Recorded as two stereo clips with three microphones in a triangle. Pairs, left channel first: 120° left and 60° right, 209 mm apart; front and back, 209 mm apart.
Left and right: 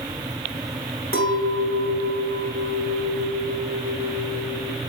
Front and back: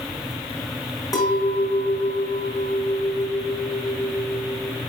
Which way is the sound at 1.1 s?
75° right.